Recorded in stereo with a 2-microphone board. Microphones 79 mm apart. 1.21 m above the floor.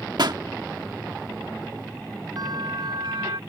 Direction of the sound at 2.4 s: 60° right (ahead or behind).